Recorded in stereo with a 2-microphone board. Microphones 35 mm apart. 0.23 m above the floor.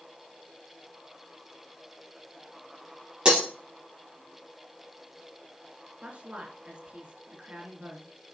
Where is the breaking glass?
25° right (ahead or behind), 3.5 m.